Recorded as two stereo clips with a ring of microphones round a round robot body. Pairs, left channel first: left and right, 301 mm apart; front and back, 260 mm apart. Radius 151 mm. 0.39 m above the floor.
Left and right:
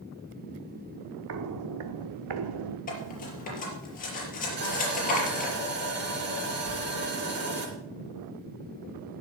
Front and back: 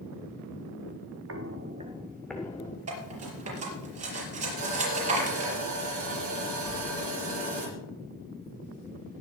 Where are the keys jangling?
75° right, 2 m.